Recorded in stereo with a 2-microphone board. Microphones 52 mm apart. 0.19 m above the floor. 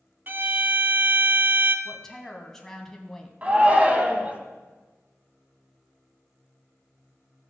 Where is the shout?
25° right (ahead or behind), 1.4 m.